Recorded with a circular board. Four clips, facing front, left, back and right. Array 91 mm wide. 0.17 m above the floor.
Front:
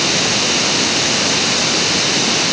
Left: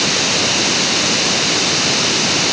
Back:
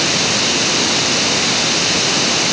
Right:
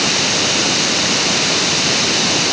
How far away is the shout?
I don't hear a shout.